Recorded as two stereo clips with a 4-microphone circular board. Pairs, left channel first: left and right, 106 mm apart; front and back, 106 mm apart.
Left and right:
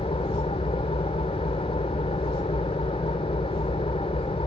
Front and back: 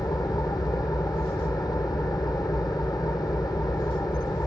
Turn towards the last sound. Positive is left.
turn(degrees=55)